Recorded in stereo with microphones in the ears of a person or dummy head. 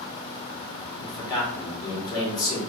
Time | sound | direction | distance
1.0 | a man speaking | 25° left (ahead or behind) | 2.5 m